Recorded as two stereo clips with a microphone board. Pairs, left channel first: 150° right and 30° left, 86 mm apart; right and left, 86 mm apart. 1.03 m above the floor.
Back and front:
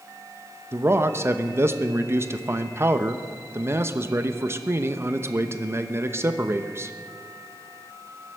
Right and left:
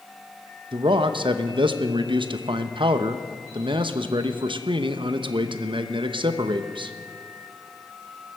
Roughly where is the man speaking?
Left.